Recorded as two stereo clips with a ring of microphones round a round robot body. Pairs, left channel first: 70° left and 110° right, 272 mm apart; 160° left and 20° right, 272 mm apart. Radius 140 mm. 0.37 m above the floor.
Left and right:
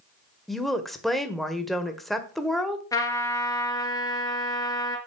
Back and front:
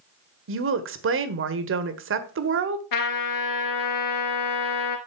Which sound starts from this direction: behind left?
A trumpet, at 2.9 s.